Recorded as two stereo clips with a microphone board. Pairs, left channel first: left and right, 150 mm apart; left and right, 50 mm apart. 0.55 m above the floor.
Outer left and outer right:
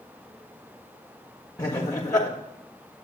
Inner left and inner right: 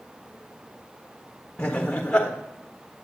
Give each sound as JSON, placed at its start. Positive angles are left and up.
{"t": 1.6, "sound": "laughter", "side_deg": 25, "distance_m": 1.4}